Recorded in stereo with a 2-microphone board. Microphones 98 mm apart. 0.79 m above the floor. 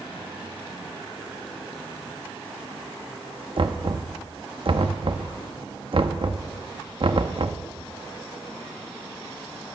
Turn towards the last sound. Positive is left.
turn(degrees=-60)  # may be behind; listen again after turning